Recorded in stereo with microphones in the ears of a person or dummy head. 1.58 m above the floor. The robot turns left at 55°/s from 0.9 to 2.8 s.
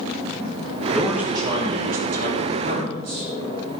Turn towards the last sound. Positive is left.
turn(degrees=-100)